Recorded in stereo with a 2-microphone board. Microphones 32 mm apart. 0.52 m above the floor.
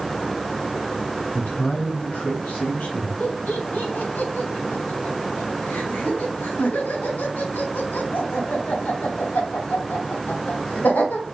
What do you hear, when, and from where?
1.3 s a man speaking: 55° left (ahead or behind), 4 m; by 3.1 s 60° left (ahead or behind), 3 m
3.2 s laughter: 75° left (ahead or behind), 3 m